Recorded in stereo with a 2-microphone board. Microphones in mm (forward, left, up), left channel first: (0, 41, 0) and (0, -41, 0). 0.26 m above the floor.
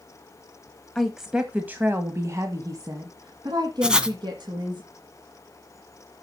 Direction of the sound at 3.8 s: 10° right (ahead or behind).